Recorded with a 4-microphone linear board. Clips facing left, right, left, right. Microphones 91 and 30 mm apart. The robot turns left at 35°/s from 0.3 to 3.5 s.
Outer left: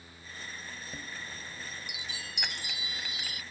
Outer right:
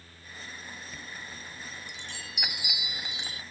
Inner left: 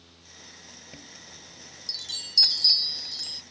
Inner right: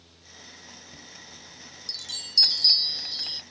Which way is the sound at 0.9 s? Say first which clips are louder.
Even, inner right 1 dB; 45° left.